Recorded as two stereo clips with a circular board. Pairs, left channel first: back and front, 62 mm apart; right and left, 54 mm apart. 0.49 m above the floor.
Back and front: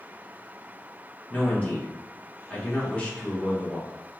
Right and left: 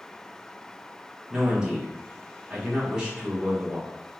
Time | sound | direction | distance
1.3 | a man speaking | 140° left | 1.3 m